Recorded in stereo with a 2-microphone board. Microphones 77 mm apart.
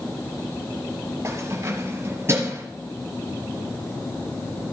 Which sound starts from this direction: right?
Keys jangling, at 1.2 s.